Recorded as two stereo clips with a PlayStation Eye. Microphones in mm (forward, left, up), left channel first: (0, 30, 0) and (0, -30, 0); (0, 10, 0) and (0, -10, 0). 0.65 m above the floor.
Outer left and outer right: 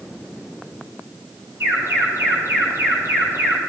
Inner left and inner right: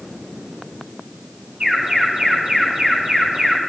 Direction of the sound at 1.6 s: 45° right (ahead or behind).